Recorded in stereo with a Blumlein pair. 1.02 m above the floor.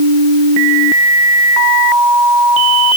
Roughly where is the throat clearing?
No throat clearing in this recording.